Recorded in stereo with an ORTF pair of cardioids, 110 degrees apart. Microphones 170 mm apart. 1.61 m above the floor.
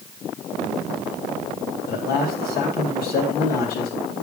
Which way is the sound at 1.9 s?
65° left.